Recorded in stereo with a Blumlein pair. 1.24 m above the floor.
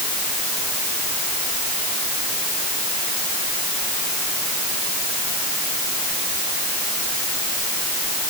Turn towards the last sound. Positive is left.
No sound to turn to.